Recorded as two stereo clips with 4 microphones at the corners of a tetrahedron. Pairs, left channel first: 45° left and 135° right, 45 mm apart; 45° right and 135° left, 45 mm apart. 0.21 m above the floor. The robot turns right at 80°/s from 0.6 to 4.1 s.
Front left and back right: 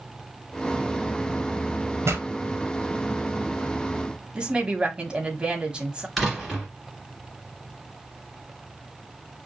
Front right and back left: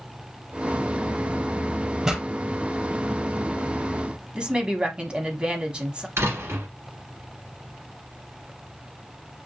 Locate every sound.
2.0 s a pop: 150° right, 1.6 m; by 2.2 s 130° right, 1.6 m
4.3 s a woman speaking: straight behind, 1.2 m
6.2 s a door slam: 130° left, 2.5 m